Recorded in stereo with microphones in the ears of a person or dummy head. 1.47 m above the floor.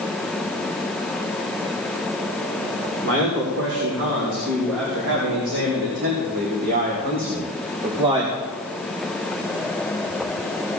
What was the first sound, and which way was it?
A man speaking, 75° right (ahead or behind).